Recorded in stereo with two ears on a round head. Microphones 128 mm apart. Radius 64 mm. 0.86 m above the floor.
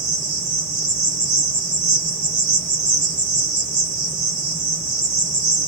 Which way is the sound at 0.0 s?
30° right (ahead or behind).